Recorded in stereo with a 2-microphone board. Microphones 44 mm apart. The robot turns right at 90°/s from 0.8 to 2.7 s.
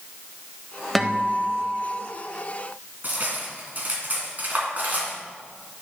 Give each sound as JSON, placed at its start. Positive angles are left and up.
{"t": 0.9, "sound": "a guitar", "azimuth_deg": 180, "distance_m": 0.7}
{"t": 3.0, "sound": "cutlery clinking", "side_deg": -40, "distance_m": 2.0}